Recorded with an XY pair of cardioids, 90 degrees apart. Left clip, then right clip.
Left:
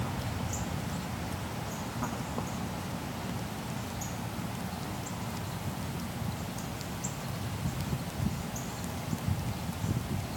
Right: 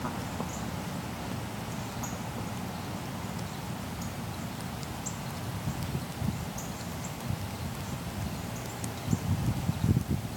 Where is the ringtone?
No ringtone in this recording.